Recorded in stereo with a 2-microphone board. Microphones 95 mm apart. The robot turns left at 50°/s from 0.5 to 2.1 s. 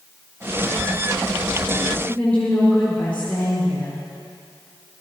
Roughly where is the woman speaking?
Centre.